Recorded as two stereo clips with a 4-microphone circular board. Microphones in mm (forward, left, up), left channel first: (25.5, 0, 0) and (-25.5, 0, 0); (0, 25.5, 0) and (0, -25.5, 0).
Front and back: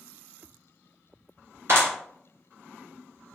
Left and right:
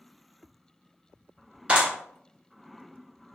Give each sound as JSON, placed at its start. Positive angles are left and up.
{"t": 1.7, "sound": "a clap", "azimuth_deg": -155, "distance_m": 2.0}